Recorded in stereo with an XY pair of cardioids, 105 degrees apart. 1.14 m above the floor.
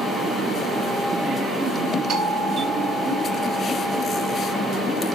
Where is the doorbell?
55° right, 2.5 m.